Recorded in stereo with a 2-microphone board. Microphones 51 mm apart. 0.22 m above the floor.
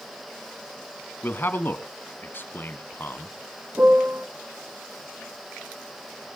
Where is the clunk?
No clunk in this recording.